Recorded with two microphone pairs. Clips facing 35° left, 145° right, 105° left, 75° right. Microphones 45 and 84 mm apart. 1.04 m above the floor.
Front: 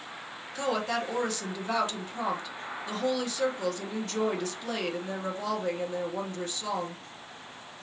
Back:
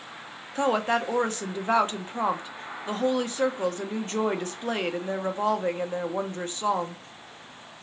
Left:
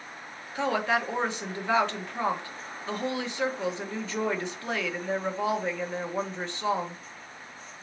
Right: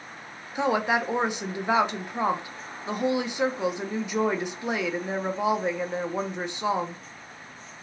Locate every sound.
0.6 s a woman speaking: 140° right, 0.8 m